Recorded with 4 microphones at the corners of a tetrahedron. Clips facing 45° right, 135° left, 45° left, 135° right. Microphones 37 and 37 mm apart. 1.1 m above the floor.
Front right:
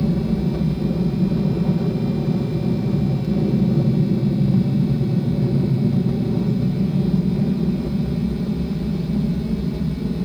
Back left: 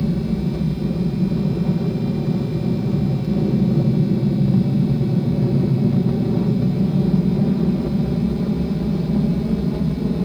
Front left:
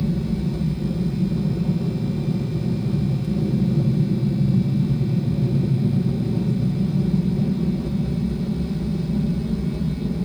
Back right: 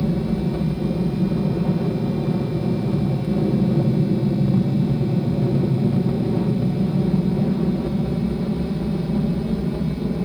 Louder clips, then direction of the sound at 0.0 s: Front right 1 dB, back right 2 dB; 115° right.